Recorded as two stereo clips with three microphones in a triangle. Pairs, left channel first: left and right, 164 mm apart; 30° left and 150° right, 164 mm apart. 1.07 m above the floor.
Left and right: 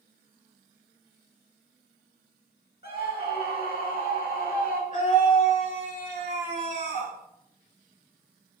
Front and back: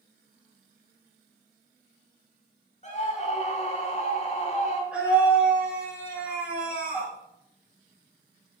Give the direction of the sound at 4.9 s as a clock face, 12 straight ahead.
8 o'clock.